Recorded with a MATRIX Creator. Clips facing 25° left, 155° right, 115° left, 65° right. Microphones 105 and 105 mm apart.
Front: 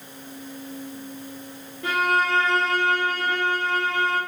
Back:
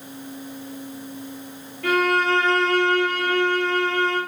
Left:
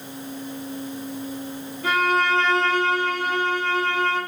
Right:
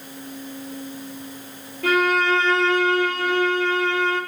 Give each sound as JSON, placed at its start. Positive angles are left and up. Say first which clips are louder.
{"t": 1.8, "sound": "a violin", "louder": "back 3 dB, right 2 dB", "azimuth_deg": -50, "distance_m": 3.5}